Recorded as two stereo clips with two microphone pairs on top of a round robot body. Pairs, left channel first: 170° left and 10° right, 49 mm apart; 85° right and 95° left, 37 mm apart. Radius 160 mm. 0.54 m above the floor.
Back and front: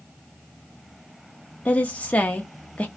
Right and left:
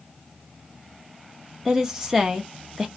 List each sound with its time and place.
1.6 s a woman speaking: 175° right, 0.7 m